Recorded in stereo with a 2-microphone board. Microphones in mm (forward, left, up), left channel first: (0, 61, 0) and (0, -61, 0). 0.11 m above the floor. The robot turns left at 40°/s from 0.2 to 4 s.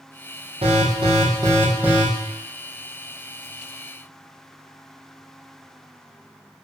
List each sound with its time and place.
0.6 s an alarm: 115° right, 3.5 m; by 2.0 s 175° right, 3.5 m